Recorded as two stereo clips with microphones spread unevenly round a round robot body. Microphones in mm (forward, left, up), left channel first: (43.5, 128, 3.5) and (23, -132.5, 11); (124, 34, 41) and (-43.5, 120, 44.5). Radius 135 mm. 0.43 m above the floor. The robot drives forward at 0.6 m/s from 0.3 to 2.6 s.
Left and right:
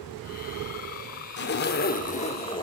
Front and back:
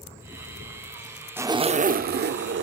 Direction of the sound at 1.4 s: 75° left.